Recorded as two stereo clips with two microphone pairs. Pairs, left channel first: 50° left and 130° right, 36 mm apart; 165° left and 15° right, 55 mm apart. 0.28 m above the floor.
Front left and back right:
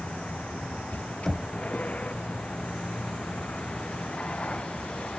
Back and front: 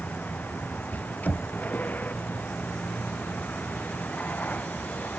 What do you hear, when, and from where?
0.0 s a vehicle: 105° left
1.2 s knocking: 130° left